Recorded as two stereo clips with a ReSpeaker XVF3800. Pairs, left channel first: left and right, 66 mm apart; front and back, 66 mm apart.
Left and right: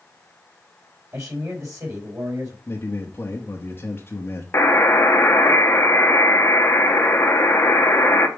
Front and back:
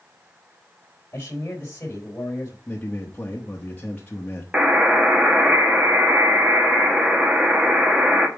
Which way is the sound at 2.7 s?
55° left.